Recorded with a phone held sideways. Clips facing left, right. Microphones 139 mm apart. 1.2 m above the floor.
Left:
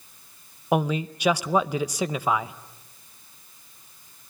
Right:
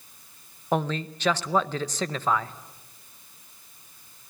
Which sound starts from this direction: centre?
A man speaking, at 0.7 s.